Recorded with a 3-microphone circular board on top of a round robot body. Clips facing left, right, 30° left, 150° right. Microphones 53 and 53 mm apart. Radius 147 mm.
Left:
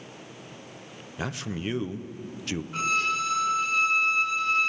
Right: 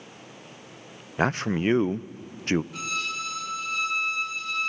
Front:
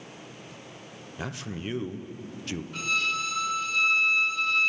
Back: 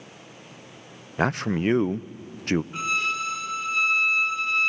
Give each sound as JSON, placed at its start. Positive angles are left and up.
{"t": 1.2, "sound": "a man speaking", "azimuth_deg": -125, "distance_m": 0.5}
{"t": 2.7, "sound": "a violin", "azimuth_deg": 145, "distance_m": 1.6}